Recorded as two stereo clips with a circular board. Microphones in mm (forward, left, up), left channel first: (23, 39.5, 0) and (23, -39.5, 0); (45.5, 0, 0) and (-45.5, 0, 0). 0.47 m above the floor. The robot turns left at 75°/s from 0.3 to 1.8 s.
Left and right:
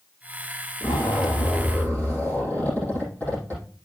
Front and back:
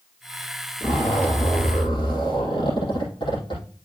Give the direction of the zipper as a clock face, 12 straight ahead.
9 o'clock.